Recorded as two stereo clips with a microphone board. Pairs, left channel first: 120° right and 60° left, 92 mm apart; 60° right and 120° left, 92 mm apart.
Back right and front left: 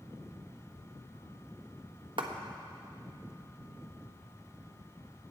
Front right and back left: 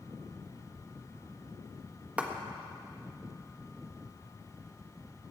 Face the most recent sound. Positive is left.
turn(degrees=45)